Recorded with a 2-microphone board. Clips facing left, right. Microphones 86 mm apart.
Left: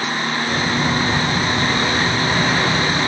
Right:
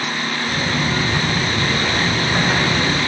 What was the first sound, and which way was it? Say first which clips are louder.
Footsteps: left 1 dB; centre (ahead or behind).